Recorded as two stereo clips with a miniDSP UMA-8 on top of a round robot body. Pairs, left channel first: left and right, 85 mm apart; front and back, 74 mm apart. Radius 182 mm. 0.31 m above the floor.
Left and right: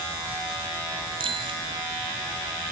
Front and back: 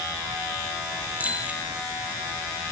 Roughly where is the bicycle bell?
Right.